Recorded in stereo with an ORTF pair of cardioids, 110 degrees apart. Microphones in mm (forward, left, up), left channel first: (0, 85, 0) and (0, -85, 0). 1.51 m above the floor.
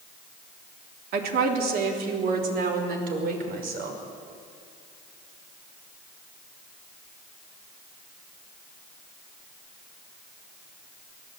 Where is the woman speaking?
65° right, 3.5 m; by 4.0 s 60° right, 6 m.